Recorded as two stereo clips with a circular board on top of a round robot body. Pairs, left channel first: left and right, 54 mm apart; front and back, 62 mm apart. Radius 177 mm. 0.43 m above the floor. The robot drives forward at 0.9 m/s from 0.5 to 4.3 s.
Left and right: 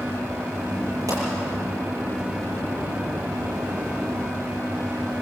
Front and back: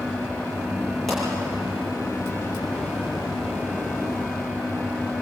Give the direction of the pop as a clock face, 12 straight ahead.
3 o'clock.